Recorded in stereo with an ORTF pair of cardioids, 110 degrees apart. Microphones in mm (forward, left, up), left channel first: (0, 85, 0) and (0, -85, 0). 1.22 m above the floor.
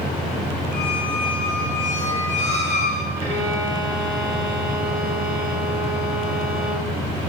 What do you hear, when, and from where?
0.7 s a squeak: 40° left, 0.6 m
3.2 s a violin: 20° right, 1.2 m